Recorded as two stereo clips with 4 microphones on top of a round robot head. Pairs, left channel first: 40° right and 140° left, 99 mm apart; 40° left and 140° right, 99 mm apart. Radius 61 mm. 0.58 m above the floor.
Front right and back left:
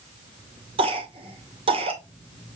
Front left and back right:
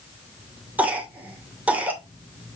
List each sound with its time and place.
0.8 s a cough: 145° left, 2.5 m